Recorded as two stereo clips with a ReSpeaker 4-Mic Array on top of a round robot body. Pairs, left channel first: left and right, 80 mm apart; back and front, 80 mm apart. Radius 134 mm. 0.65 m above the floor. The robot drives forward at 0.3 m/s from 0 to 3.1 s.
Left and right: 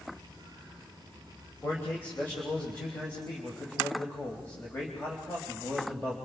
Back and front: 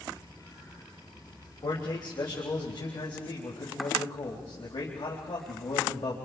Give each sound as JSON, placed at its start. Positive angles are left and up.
{"t": 1.6, "sound": "a man speaking", "azimuth_deg": 155, "distance_m": 3.5}